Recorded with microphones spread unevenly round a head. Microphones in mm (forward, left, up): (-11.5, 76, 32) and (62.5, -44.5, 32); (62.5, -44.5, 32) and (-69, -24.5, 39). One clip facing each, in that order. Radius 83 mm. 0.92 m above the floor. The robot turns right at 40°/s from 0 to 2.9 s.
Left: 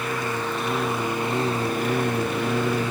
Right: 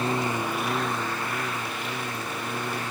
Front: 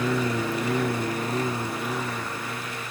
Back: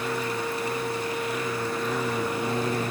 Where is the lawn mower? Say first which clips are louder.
Right 1 dB, front 3 dB; straight ahead; by 2.9 s 120° left.